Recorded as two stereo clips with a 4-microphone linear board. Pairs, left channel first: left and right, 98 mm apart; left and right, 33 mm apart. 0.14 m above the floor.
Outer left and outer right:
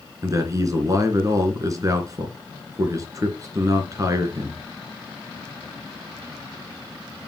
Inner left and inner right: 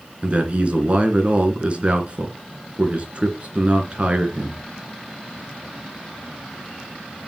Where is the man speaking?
35° right (ahead or behind), 2.5 m.